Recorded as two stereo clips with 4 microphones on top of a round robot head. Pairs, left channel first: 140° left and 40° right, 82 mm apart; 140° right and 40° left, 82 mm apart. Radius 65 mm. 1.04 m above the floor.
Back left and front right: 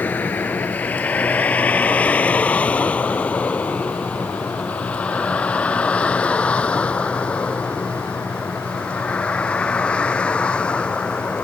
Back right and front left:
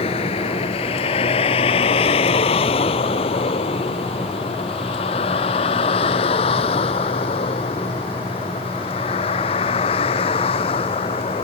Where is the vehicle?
145° right; by 11.4 s 140° right.